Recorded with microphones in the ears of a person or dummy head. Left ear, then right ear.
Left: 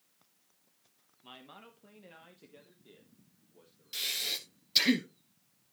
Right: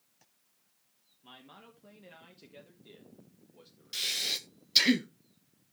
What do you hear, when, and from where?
1.2 s a man speaking: 20° left (ahead or behind), 1.3 m; by 4.4 s 40° right (ahead or behind), 1.9 m
3.9 s breathing: 5° right (ahead or behind), 0.9 m